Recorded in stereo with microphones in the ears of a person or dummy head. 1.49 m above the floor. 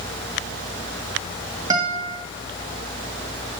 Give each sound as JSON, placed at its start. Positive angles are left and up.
{"t": 1.7, "sound": "a guitar", "side_deg": -15, "distance_m": 1.9}